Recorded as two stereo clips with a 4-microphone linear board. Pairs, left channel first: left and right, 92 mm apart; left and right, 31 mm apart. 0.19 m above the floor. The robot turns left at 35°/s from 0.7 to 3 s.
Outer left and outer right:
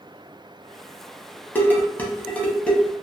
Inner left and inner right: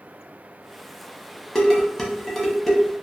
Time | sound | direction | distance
1.6 | dishes clattering | 20° left (ahead or behind) | 0.7 m